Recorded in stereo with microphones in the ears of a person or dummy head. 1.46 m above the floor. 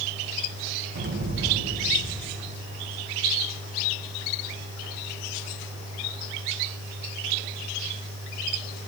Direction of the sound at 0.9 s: 45° right (ahead or behind).